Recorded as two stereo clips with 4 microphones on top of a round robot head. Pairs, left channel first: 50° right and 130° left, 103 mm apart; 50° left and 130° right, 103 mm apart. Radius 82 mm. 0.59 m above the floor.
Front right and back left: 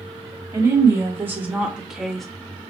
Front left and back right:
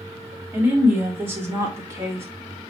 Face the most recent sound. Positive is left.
turn(degrees=-135)